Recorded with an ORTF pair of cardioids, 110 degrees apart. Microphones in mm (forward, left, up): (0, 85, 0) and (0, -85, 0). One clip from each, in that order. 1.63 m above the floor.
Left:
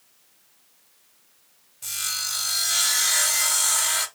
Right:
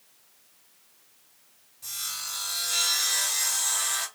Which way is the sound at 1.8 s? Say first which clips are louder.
Left 6 dB; 50° left.